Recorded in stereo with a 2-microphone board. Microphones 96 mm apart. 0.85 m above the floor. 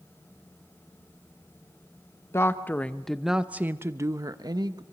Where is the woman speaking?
25° left (ahead or behind), 0.9 m; by 4.8 s 50° right (ahead or behind), 1.1 m.